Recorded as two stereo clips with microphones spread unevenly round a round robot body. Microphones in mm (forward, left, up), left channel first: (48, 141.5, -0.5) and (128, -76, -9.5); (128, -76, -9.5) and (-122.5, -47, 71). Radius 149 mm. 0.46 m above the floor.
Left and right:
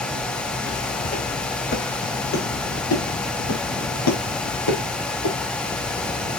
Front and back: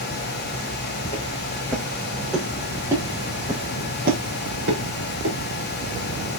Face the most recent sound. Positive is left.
turn(degrees=130)